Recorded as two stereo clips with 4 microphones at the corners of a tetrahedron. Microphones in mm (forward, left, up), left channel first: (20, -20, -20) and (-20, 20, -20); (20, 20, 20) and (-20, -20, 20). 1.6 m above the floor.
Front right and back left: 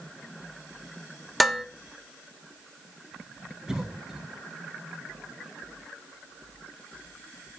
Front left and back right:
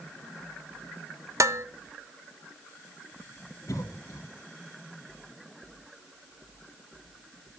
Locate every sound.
1.4 s dishes clattering: 135° right, 1.1 m
3.7 s a cough: 55° left, 3 m